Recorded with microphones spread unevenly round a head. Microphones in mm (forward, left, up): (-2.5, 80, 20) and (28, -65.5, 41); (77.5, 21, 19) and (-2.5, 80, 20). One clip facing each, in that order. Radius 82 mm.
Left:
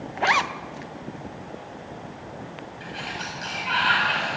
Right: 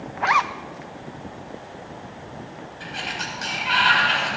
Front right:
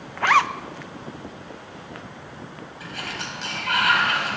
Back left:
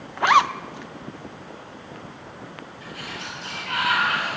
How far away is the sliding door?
About 5 m.